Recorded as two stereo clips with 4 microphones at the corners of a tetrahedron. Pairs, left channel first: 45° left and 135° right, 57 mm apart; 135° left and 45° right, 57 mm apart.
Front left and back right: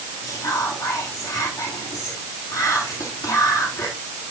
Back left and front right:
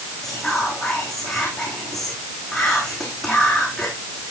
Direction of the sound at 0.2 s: 50° left.